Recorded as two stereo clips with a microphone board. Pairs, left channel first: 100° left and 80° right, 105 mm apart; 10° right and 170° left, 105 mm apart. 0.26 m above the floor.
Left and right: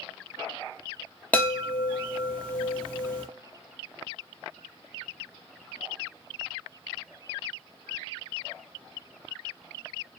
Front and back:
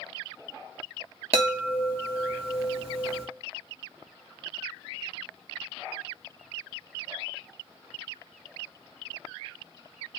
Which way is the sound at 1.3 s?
175° left.